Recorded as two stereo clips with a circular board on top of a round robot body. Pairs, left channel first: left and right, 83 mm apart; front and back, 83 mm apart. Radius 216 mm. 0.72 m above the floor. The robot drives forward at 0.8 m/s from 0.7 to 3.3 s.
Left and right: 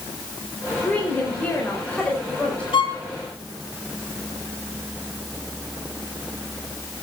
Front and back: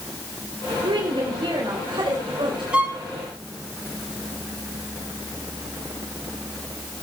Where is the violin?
105° left, 2 m; by 3.0 s 110° left, 2.5 m.